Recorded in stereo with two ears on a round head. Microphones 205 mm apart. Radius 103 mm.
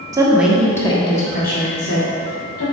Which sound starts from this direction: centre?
A woman speaking, at 0.1 s.